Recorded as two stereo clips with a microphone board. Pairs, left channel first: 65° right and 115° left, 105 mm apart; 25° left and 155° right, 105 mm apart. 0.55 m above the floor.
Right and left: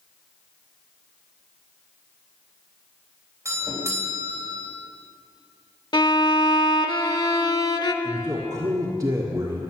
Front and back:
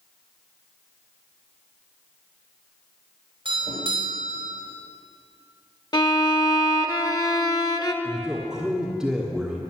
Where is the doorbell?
170° left, 4 m.